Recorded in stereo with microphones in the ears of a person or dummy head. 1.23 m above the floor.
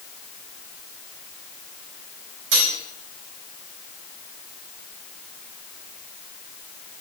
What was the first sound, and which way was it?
Cutlery clinking, 60° right (ahead or behind).